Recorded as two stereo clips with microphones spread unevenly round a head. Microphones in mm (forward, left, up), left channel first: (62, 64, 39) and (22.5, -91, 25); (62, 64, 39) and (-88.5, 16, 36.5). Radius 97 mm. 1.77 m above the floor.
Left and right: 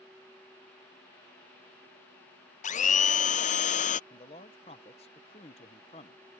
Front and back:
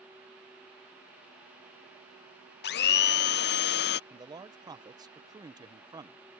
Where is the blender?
35° left.